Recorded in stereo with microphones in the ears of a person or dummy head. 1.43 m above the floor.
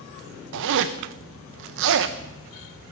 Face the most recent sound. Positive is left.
turn(degrees=-65)  # may be behind; listen again after turning